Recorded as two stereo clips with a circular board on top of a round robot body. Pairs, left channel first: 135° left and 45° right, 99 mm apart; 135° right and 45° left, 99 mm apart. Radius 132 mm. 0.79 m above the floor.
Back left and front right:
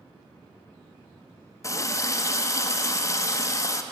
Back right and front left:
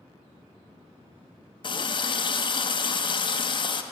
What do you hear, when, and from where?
1.6 s a running tap: 170° right, 0.5 m